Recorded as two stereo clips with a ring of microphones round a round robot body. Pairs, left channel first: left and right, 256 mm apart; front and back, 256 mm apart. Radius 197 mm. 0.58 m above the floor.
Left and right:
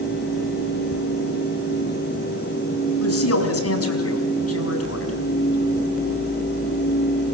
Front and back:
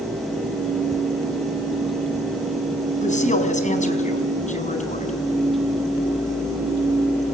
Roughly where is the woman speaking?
Ahead left.